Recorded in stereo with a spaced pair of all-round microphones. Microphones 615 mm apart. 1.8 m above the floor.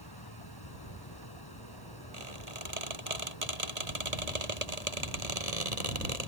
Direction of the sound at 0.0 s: 35° left (ahead or behind).